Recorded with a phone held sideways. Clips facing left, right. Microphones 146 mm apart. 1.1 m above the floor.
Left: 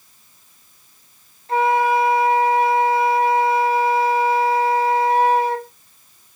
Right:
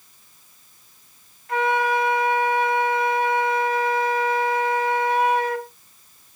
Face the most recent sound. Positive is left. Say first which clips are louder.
# left 4 dB
turn(degrees=30)  # may be behind; listen again after turning